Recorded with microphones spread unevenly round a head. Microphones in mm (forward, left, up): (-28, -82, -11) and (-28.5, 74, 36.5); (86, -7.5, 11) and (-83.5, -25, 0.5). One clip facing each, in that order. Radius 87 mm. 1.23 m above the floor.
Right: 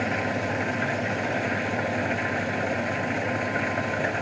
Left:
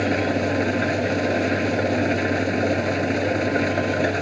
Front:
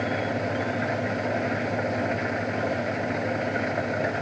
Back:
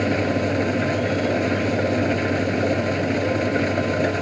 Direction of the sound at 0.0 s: 130° left.